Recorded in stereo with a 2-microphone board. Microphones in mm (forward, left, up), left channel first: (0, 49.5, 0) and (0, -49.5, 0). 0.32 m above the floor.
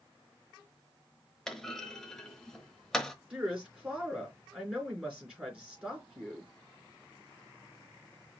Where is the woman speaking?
10° right (ahead or behind), 3.5 m.